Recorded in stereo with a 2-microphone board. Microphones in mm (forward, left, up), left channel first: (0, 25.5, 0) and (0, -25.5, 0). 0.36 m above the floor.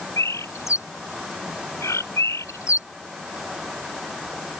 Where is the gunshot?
I don't hear a gunshot.